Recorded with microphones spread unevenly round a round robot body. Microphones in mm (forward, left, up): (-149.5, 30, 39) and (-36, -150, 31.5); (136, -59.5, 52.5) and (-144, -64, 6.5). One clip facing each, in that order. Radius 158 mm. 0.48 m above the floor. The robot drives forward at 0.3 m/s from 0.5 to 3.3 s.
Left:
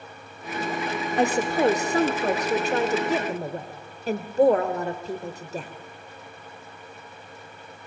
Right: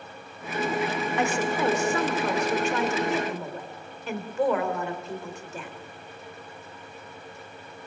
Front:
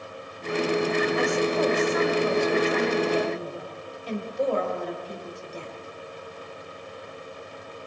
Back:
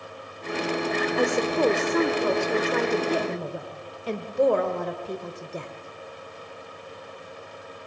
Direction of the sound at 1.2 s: 170° left.